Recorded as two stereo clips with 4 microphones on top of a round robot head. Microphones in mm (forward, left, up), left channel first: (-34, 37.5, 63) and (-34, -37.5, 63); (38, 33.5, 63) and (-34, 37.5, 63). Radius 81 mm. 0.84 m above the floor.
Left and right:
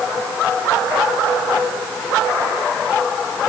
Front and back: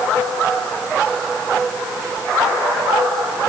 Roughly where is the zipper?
I don't hear a zipper.